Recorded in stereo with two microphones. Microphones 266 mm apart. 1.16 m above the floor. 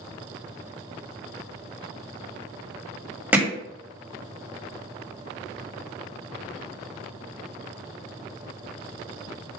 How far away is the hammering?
About 1.3 m.